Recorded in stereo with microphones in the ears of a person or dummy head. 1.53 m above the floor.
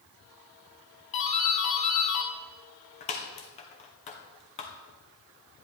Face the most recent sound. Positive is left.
turn(degrees=35)  # may be behind; listen again after turning